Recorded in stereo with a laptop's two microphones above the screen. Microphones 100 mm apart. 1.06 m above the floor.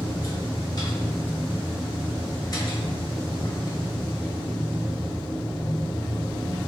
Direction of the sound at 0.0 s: 40° left (ahead or behind).